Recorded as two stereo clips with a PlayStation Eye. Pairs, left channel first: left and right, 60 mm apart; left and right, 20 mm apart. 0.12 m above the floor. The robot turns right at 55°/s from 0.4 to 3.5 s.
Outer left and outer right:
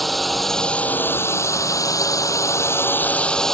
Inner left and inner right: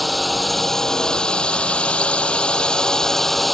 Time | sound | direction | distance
0.0 | a drone | straight ahead | ?